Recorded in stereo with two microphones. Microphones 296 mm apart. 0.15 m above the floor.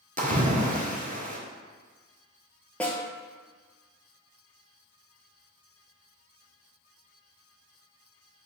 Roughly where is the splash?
Right.